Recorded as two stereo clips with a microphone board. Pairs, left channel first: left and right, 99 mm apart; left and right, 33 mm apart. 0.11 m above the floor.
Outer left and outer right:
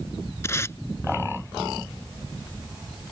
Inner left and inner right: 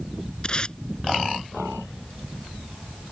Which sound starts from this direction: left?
Tape being pulled, at 0.4 s.